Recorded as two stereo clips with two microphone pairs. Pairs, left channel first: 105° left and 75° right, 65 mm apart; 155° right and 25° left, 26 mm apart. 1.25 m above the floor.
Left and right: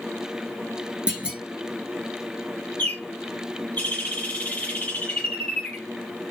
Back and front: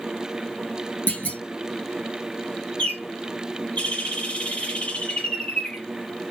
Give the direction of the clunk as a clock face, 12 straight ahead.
5 o'clock.